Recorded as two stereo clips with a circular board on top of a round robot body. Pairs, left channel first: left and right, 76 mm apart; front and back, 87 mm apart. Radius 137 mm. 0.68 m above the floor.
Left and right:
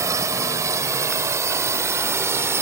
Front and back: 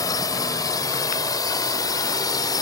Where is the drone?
45° right; by 2.6 s 40° right.